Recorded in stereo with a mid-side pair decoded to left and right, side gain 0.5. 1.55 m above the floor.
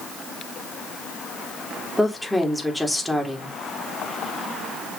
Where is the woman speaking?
5° left, 3 m.